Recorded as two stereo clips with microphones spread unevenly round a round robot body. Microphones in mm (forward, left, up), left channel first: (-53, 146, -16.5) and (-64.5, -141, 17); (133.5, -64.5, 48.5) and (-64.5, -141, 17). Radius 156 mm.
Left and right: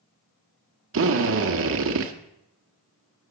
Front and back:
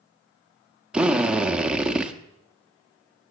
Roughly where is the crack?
I don't hear a crack.